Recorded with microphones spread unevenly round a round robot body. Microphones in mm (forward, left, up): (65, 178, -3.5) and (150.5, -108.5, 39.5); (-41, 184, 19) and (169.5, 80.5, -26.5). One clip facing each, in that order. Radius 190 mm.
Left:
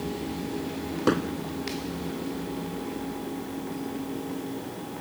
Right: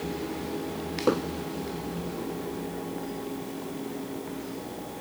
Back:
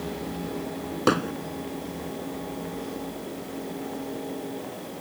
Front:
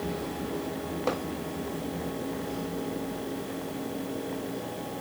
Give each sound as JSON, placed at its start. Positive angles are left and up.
{"t": 1.1, "sound": "hammering", "azimuth_deg": 180}